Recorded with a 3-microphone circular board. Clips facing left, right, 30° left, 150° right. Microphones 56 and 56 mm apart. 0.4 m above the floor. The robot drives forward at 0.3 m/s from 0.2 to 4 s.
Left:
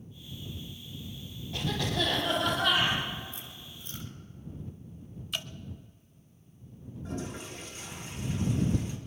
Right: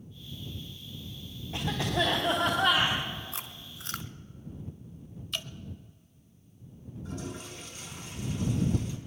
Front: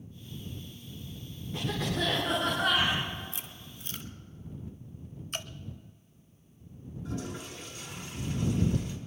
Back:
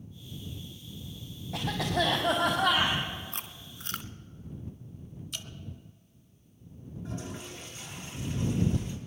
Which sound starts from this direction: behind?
A cough, at 1.5 s.